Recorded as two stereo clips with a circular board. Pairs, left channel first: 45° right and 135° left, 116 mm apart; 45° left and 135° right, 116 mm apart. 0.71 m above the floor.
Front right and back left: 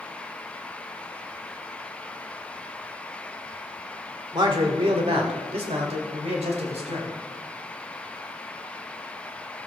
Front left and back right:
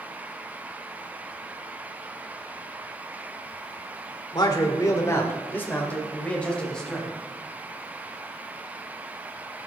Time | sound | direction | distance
4.3 | a man speaking | 90° left | 1.7 m